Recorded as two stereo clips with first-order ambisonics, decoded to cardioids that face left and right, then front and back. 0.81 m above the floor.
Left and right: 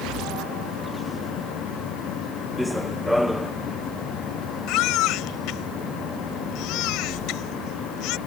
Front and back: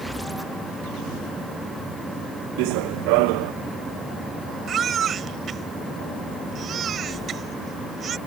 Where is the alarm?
No alarm in this recording.